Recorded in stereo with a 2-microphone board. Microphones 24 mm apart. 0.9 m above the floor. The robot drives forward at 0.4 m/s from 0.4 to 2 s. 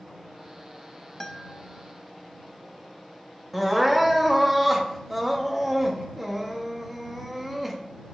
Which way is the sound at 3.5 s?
10° right (ahead or behind).